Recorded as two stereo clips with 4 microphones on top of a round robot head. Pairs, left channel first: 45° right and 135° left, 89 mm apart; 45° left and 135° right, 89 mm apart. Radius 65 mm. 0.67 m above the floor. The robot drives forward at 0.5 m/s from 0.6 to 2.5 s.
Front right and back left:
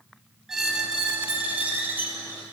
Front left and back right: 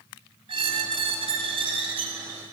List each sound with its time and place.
0.5 s a squeak: 140° right, 1.2 m; by 2.4 s 160° right, 2.0 m